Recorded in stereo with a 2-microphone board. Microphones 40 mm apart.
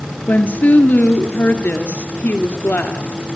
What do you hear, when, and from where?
0.3 s a woman speaking: 45° left (ahead or behind), 2 m